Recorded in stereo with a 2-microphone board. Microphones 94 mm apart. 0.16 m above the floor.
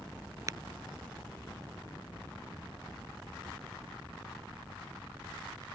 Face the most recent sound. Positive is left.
turn(degrees=-40)  # may be behind; listen again after turning